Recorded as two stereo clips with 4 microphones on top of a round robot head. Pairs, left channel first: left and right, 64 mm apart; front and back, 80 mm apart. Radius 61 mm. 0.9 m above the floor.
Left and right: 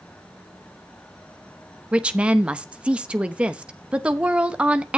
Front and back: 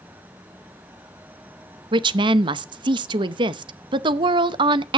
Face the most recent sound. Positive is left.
turn(degrees=-165)